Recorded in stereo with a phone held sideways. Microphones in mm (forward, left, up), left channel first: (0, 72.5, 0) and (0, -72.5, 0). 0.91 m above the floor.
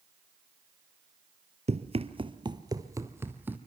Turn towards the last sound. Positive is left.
turn(degrees=-10)  # may be behind; listen again after turning